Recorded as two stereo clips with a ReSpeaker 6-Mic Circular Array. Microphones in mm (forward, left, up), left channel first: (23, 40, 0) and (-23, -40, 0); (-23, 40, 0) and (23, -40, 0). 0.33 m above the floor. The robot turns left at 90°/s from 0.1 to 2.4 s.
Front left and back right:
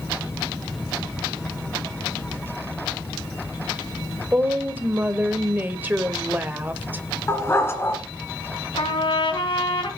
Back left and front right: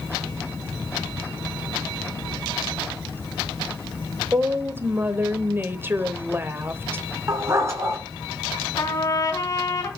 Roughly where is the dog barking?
Ahead.